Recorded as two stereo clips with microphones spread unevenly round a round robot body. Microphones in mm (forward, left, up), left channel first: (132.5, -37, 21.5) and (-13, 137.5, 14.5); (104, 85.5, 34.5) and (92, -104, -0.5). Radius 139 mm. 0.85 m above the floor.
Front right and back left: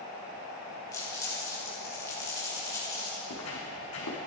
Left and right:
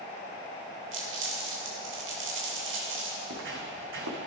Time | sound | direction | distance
0.9 | crumpling | 130° right | 2 m
3.3 | footsteps | 90° right | 3 m